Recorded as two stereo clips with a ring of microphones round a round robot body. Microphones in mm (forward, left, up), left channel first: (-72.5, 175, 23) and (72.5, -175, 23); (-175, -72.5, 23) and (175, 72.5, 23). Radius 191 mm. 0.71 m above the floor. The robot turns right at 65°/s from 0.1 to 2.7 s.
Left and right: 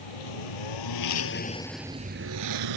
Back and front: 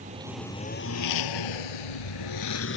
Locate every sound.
0.0 s a lawn mower: 95° left; by 2.8 s 95° right